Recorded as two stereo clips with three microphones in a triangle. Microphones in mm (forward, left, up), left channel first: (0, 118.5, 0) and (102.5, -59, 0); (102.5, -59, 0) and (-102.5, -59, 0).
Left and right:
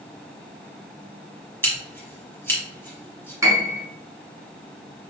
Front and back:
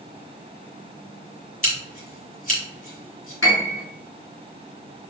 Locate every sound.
1.6 s scissors: 40° left, 1.7 m
3.4 s a piano: 15° left, 1.3 m